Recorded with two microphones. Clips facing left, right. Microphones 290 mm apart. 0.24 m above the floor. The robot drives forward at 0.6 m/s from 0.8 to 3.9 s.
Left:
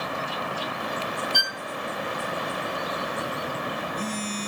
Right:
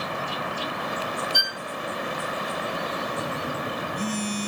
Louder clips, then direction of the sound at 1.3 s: Even; 55° left (ahead or behind).